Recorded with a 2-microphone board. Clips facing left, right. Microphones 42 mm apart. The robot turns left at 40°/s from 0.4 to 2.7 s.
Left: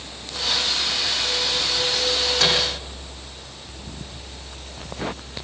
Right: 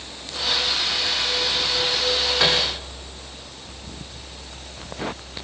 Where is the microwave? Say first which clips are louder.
Right 1 dB; 20° right (ahead or behind), 7 m; by 2.6 s 10° right (ahead or behind), 7 m.